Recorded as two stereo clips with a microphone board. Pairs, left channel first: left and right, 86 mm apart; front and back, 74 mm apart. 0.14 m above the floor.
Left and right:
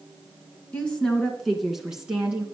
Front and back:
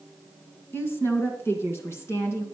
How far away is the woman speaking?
About 1.8 m.